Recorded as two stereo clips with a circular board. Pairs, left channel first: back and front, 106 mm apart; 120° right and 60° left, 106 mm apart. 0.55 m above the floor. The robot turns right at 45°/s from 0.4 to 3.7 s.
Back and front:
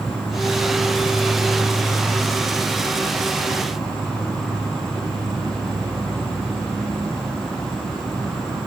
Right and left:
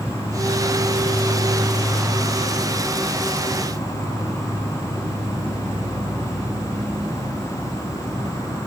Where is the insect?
125° left, 1.6 m; by 8.7 s 85° right, 1.6 m.